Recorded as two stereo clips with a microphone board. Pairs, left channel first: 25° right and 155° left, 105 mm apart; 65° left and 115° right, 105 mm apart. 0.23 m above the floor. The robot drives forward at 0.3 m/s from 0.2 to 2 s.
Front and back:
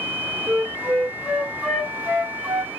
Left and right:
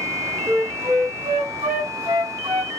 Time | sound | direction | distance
0.5 | a flute | 115° right | 2 m